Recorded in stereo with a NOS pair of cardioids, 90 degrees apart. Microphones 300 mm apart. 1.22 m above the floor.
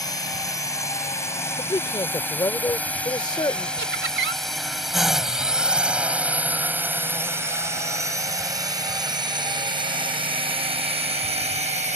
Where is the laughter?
40° right.